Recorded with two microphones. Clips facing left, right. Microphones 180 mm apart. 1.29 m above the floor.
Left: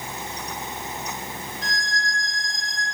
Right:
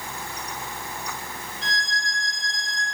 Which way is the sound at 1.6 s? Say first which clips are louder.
Even; 25° right (ahead or behind).